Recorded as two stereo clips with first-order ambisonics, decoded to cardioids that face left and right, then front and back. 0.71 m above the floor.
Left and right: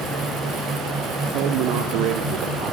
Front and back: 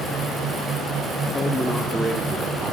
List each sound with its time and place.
1.3 s a man speaking: 70° right, 2.0 m; by 2.7 s 120° right, 3 m